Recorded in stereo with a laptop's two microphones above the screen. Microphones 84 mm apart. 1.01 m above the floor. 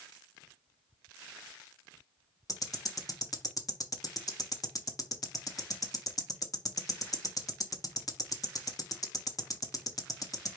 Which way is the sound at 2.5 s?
45° left (ahead or behind).